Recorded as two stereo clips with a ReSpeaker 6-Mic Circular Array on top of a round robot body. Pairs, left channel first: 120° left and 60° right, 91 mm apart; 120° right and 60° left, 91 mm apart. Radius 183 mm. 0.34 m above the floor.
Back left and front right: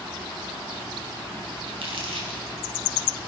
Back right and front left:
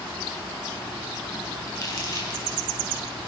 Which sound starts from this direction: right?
Crumpling, at 1.7 s.